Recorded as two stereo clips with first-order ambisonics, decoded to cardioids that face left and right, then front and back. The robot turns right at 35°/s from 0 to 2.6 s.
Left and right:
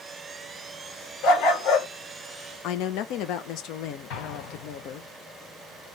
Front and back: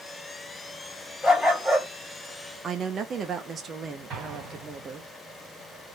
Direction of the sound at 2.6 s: 115° left.